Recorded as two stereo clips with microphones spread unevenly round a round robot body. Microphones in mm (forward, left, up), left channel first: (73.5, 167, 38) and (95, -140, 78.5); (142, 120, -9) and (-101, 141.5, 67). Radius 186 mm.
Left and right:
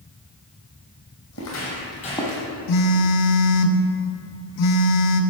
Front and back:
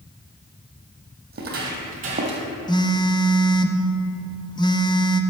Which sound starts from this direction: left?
A phone buzzing, at 2.7 s.